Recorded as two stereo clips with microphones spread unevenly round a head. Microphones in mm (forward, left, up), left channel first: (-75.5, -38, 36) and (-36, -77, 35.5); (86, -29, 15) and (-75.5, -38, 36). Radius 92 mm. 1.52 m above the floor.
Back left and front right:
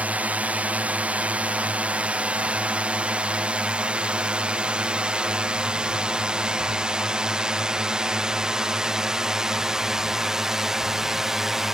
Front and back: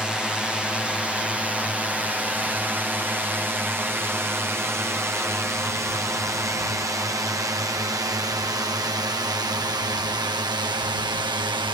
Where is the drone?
85° right; by 11.8 s 125° right.